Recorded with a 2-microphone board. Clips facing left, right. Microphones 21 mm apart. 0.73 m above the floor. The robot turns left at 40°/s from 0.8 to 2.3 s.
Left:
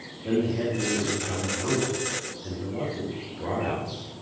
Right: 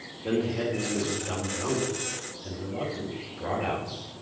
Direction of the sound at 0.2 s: 125° right.